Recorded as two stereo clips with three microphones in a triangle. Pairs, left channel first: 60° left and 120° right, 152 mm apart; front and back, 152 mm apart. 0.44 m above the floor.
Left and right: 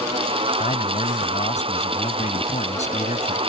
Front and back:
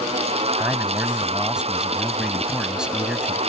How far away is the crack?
I don't hear a crack.